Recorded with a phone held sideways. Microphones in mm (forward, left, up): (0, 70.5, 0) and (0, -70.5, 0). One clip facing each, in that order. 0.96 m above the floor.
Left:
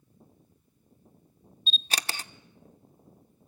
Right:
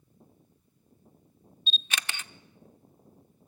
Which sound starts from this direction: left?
A camera shutter, at 1.7 s.